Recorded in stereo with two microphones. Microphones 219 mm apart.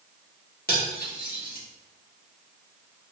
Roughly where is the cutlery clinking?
Left.